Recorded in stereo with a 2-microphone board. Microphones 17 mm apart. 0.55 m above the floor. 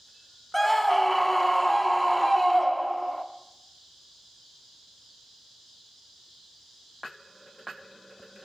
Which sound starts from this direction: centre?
A scream, at 0.5 s.